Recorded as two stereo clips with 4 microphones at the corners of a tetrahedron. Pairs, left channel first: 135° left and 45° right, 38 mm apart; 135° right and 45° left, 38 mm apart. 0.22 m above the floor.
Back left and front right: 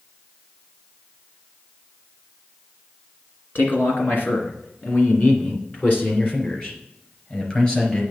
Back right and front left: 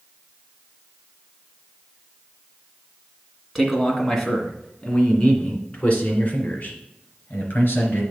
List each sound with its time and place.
3.5 s a man speaking: 135° left, 2 m; by 8.0 s 170° right, 3.5 m